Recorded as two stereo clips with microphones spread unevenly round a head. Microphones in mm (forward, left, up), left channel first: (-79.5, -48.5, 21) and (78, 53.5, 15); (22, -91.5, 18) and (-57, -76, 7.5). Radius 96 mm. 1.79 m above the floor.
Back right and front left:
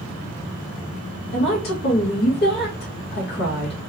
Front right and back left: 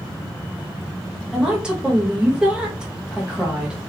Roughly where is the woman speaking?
Right.